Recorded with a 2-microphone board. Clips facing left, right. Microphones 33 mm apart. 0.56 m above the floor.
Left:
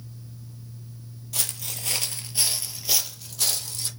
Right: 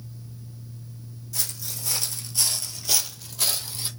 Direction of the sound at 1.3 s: 60° left (ahead or behind).